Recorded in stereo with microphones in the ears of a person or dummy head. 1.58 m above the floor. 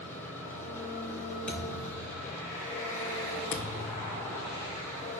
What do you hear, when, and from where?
0.0 s an engine running: 20° left (ahead or behind), 5.5 m
1.5 s a thud: 15° left (ahead or behind), 5 m
3.5 s a thud: 45° left (ahead or behind), 1.2 m